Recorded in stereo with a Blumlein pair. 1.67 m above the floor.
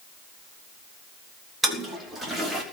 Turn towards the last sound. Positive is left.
turn(degrees=-10)